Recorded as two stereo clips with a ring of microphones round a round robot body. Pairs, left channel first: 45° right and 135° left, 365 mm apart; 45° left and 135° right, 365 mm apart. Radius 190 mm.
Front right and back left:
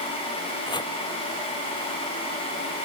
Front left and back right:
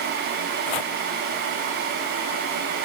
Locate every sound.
0.7 s chopping: 35° left